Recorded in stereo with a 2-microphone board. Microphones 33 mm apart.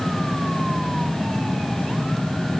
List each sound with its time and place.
Only background noise.